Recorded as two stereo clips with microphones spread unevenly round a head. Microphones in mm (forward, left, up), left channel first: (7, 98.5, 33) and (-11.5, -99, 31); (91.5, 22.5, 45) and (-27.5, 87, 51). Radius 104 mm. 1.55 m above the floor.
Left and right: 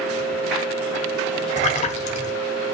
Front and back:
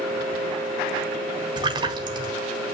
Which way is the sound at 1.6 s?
120° left.